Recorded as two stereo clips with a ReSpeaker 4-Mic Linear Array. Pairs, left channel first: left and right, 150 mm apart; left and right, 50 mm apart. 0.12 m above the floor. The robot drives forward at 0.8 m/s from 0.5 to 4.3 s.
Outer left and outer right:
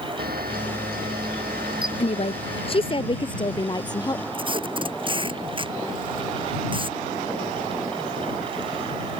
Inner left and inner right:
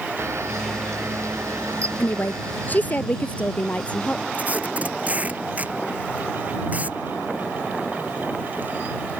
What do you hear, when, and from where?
0.2 s a camera shutter: 80° right; by 3.0 s 75° right (ahead or behind)
2.0 s a woman speaking: 45° left (ahead or behind); by 4.2 s 25° left (ahead or behind)
4.3 s tape being pulled: 35° right (ahead or behind)